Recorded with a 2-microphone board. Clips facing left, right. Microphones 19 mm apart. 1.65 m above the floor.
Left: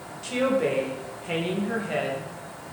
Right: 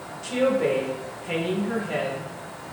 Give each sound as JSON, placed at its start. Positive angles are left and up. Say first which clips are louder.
{"t": 0.2, "sound": "a woman speaking", "louder": "right 2 dB", "side_deg": 5, "distance_m": 0.6}